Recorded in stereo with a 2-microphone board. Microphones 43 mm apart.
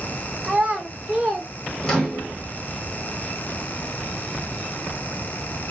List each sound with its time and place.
0.4 s a child speaking: 30° right (ahead or behind), 3 m; by 1.5 s 20° right (ahead or behind), 3 m
1.8 s a microwave: 15° left (ahead or behind), 1.8 m